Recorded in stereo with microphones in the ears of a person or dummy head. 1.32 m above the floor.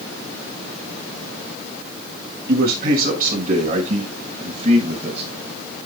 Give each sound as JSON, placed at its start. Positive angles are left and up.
{"t": 2.5, "sound": "a man speaking", "side_deg": -60, "distance_m": 7.0}